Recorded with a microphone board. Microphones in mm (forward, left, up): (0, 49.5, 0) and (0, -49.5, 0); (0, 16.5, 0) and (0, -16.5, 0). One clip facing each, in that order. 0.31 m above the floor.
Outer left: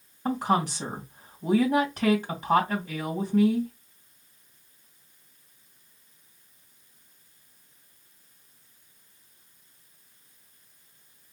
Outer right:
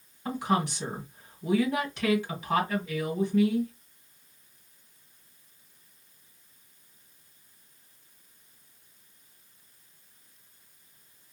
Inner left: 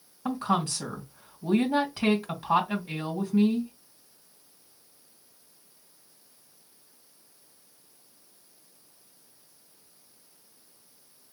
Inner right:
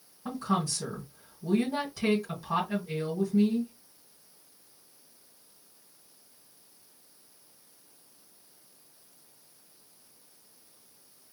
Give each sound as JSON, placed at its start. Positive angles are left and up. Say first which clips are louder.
{"t": 0.2, "sound": "a woman speaking", "louder": "outer left 3 dB, inner left 3 dB", "side_deg": 45, "distance_m": 2.5}